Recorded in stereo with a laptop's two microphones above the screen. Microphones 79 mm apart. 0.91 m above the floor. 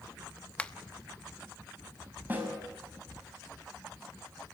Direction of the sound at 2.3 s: 25° right (ahead or behind).